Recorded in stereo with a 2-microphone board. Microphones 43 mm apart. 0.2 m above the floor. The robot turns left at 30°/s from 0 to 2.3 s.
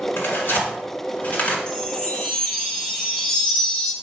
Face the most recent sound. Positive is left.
turn(degrees=15)  # may be behind; listen again after turning